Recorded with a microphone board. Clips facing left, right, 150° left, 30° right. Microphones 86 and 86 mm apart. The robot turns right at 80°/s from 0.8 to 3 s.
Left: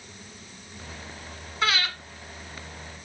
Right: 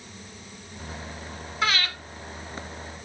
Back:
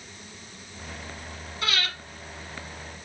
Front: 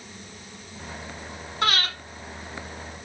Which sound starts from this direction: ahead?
Breathing, at 1.6 s.